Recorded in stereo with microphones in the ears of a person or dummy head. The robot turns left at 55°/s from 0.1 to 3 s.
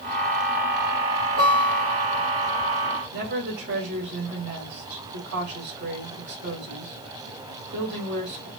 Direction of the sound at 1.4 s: 110° right.